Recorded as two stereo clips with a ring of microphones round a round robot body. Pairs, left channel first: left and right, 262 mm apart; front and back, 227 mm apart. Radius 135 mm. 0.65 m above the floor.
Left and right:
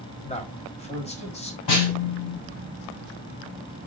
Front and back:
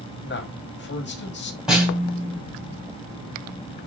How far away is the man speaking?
About 1.2 m.